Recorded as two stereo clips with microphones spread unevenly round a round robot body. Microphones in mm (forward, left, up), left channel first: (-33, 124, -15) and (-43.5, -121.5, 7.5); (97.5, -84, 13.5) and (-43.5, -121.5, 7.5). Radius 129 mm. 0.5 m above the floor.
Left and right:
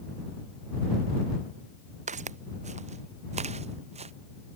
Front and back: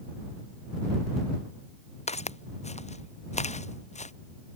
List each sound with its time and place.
2.1 s footsteps: 25° right